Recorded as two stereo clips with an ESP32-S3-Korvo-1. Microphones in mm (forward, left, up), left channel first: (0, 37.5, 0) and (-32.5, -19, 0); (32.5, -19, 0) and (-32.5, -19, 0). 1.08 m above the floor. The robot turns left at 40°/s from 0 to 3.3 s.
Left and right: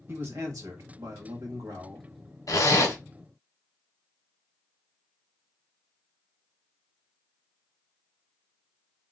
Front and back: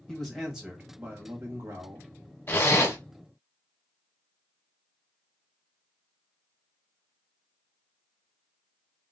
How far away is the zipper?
About 1.1 m.